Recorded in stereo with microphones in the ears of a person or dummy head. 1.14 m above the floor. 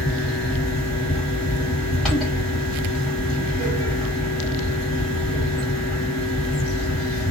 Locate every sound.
0.0 s a fan: centre (ahead or behind), 1.4 m